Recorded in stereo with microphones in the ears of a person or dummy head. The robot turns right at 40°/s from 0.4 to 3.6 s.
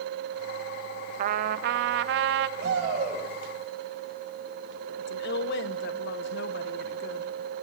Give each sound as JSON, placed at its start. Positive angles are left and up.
{"t": 1.2, "sound": "a trumpet", "azimuth_deg": -125, "distance_m": 0.5}
{"t": 2.6, "sound": "a shout", "side_deg": -70, "distance_m": 7.5}
{"t": 5.0, "sound": "a woman speaking", "side_deg": 60, "distance_m": 1.1}